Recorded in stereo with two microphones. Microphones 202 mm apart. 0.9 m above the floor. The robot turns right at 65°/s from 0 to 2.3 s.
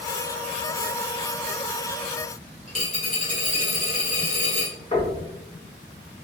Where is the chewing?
I don't hear chewing.